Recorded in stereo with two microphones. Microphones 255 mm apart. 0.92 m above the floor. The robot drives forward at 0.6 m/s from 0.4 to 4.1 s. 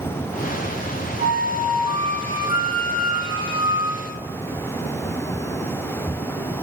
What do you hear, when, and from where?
1.2 s a flute: 30° right (ahead or behind), 6 m; by 4.2 s 25° right (ahead or behind), 7.5 m